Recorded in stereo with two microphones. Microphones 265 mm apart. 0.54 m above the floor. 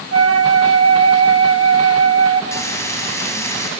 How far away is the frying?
About 3.5 m.